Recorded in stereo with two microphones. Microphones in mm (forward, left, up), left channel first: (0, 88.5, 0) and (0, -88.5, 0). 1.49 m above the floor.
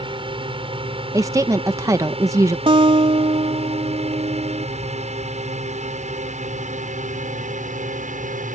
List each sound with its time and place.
0.0 s a drone: 30° right (ahead or behind); by 8.6 s 45° right (ahead or behind)
1.1 s a woman speaking: 15° right (ahead or behind)
2.7 s a guitar: 30° right (ahead or behind)